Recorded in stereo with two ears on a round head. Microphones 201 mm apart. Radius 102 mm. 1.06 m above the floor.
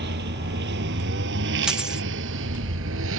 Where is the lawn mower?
45° right (ahead or behind); by 3.2 s 60° right (ahead or behind).